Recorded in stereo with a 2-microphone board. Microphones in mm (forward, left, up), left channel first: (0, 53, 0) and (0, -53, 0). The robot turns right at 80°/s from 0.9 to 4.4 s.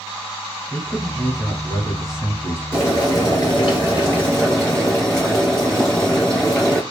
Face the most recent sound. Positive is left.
turn(degrees=170)